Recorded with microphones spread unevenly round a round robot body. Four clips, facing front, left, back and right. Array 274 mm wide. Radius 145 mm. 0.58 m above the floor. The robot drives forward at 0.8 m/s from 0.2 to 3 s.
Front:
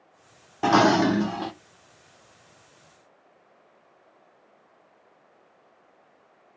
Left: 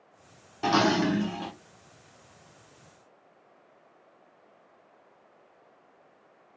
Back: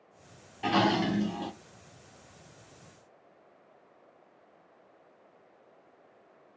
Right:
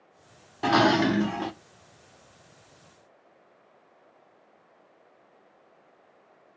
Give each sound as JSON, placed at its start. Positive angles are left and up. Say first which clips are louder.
{"t": 0.6, "sound": "dishes clattering", "louder": "right 3 dB, front 8 dB", "azimuth_deg": -15, "distance_m": 1.0}